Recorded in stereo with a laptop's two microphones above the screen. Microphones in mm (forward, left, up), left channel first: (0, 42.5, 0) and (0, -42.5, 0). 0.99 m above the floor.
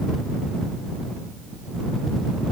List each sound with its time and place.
Only background noise.